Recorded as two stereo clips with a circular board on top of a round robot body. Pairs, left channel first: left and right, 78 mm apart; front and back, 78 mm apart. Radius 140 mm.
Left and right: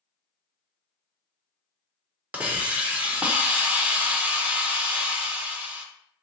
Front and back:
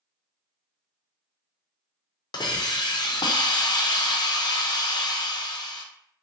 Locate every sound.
2.3 s a hiss: 20° right, 0.7 m